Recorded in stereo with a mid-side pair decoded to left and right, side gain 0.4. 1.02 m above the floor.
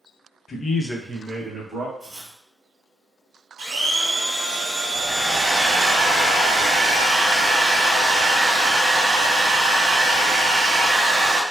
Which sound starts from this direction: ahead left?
A man speaking, at 0.5 s.